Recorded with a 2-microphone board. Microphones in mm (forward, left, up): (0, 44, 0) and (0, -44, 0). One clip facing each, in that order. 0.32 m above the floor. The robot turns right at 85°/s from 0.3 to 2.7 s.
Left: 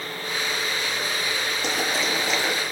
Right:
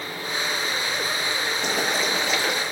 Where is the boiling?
75° right, 7 m; by 2.6 s 10° left, 7 m.